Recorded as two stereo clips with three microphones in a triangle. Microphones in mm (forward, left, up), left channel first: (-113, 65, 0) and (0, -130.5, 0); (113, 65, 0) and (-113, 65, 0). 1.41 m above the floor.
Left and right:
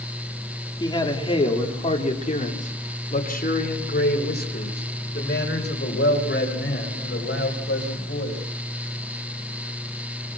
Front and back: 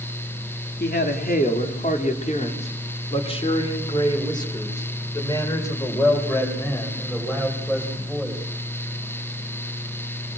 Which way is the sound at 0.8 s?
50° left.